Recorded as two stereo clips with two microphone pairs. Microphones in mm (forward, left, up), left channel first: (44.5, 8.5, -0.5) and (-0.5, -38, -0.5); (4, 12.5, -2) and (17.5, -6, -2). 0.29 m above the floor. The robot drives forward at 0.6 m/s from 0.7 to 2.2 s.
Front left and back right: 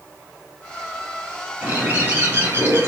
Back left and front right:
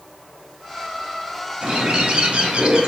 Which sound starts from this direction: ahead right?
A bird, at 1.6 s.